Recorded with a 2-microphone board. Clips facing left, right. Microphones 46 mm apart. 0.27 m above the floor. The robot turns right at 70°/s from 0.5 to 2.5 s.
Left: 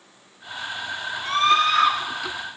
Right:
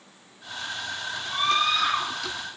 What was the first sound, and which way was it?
A scream, 90° left.